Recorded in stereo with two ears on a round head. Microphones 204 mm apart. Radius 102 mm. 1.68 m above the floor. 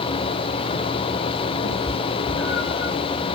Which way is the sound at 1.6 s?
45° left (ahead or behind).